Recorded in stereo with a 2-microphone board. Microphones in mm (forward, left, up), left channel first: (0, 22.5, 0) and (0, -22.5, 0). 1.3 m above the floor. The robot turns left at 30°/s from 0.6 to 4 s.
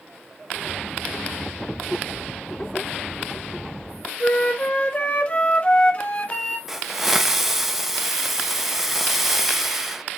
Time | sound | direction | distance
4.2 | a flute | 30° left (ahead or behind) | 0.9 m
6.7 | a hiss | 10° right (ahead or behind) | 0.6 m